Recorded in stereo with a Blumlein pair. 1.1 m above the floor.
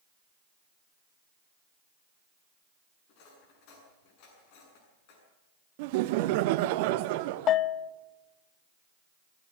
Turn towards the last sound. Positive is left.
turn(degrees=30)